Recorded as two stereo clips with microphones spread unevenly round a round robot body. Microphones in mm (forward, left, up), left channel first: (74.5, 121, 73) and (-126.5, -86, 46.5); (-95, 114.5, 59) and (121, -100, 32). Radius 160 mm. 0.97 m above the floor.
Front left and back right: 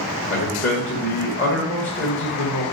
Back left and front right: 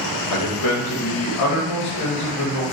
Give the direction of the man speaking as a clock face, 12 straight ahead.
9 o'clock.